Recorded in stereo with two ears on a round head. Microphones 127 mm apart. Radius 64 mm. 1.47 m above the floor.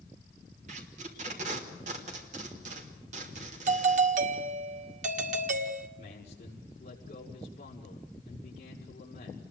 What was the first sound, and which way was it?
Tape being pulled, 50° right (ahead or behind).